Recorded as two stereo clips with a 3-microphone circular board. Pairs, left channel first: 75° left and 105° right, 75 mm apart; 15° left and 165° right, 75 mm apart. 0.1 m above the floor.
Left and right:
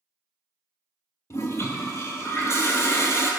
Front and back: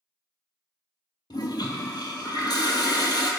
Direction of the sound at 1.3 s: 25° left.